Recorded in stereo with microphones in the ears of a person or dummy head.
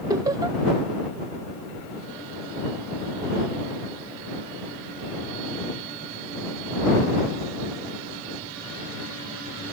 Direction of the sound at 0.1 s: 20° right (ahead or behind).